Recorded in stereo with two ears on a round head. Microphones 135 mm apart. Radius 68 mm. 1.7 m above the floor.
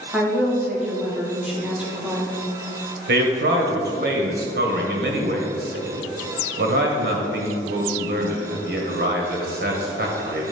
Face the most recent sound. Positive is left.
turn(degrees=-70)  # may be behind; listen again after turning